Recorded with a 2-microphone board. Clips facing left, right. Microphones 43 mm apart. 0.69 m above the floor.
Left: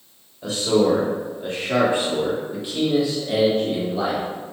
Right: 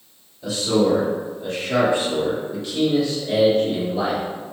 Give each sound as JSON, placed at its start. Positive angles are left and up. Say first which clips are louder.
{"t": 0.4, "sound": "a man speaking", "louder": "left 1 dB", "side_deg": 50, "distance_m": 1.9}